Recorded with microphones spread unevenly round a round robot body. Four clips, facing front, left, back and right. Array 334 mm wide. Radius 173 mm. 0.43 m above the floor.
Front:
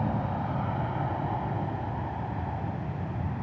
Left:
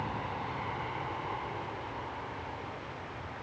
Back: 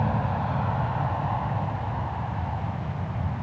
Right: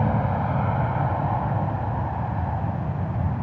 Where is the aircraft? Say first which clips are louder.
Right 12 dB, back 3 dB; 110° right; by 3.4 s 105° right.